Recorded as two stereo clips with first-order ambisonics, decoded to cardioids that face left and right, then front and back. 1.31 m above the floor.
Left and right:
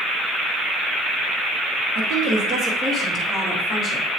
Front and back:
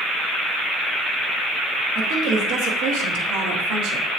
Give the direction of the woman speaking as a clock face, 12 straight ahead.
4 o'clock.